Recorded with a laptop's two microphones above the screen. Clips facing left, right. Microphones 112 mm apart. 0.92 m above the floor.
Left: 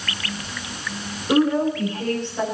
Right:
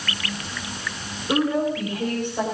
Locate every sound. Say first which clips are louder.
1.3 s a woman speaking: left 3 dB; 5° left (ahead or behind), 4.5 m; by 2.5 s 15° right (ahead or behind), 4.5 m